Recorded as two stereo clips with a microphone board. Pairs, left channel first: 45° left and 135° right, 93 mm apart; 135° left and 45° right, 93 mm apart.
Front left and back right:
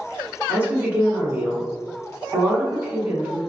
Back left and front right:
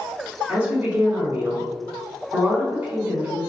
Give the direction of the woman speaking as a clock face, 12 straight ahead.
3 o'clock.